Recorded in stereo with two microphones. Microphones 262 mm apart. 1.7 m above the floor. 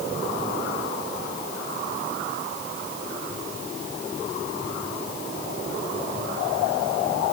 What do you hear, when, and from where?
Only background noise.